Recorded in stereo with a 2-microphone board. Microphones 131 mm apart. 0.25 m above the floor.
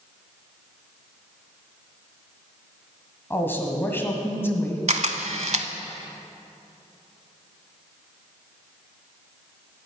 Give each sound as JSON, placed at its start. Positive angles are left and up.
{"t": 3.3, "sound": "a woman speaking", "side_deg": 15, "distance_m": 1.6}
{"t": 4.9, "sound": "a camera shutter", "side_deg": -65, "distance_m": 0.7}